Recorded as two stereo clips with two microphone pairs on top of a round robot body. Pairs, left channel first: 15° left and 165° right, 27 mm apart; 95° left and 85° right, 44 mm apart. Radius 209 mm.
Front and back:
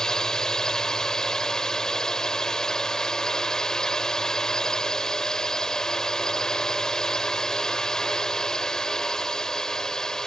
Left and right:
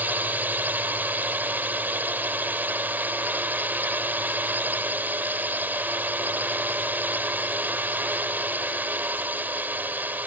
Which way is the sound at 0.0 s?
50° right.